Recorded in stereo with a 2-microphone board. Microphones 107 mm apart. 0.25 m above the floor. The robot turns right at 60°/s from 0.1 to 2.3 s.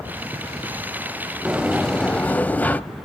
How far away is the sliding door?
About 0.5 m.